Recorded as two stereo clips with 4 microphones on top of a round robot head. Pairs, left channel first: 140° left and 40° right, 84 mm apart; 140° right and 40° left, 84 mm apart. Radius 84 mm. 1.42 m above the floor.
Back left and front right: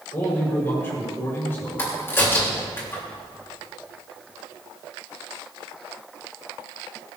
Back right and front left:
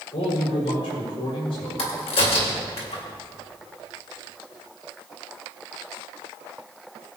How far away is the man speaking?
About 6.5 m.